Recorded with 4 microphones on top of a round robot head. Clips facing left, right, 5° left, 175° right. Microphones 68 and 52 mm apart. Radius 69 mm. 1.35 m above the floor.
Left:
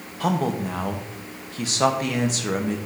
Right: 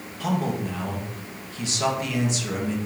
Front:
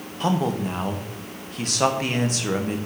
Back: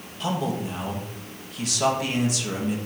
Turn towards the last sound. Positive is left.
turn(degrees=50)